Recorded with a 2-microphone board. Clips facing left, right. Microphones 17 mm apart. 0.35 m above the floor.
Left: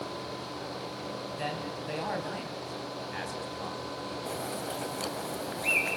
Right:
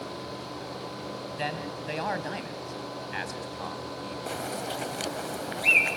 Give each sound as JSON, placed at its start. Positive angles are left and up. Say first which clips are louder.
{"t": 1.4, "sound": "a man speaking", "louder": "right 4 dB", "side_deg": -25, "distance_m": 3.0}
{"t": 4.3, "sound": "a bird", "louder": "right 4 dB", "side_deg": -25, "distance_m": 1.5}